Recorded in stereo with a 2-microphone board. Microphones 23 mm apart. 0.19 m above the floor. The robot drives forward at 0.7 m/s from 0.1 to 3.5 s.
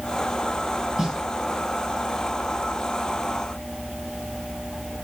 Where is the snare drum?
25° right (ahead or behind), 3.5 m.